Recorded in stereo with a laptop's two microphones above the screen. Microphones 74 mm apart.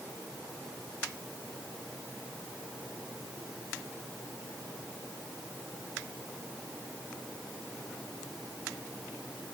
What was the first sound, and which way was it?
Only background noise.